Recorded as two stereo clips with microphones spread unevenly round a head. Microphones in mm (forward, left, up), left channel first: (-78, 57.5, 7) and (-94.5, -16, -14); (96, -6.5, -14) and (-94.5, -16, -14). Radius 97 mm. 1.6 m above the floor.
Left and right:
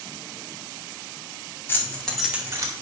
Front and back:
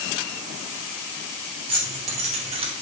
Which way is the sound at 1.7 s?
125° left.